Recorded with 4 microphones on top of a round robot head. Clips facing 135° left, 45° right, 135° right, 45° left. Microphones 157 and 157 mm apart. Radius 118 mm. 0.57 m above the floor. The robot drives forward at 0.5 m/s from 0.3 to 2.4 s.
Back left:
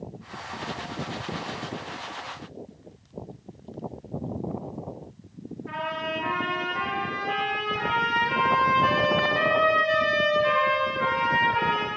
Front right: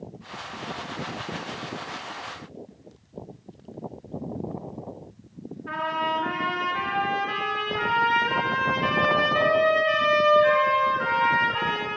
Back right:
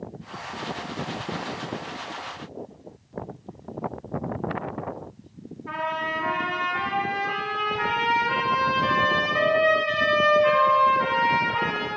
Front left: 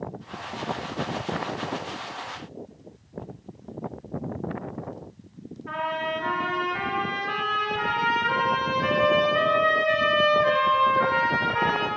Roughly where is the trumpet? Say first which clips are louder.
Front right 3 dB, front left 1 dB; right.